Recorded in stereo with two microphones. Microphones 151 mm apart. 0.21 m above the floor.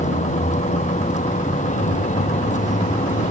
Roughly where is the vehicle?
Left.